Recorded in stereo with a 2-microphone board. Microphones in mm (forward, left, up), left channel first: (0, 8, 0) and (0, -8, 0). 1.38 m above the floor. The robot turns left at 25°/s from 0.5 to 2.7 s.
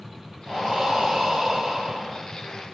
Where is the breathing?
75° right, 4.5 m; by 2.2 s 120° right, 4.5 m.